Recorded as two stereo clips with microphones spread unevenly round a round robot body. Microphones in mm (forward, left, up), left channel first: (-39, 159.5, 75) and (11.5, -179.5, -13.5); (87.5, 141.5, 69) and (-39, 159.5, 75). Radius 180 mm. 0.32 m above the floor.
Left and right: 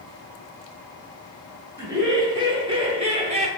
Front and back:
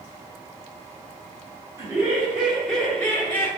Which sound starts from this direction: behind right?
Laughter, at 1.8 s.